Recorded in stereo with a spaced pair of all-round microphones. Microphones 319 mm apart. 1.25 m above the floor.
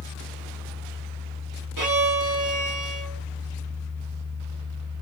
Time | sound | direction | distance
0.0 | a fan | 20° right (ahead or behind) | 1.5 m
1.8 | a violin | 75° right (ahead or behind) | 1.1 m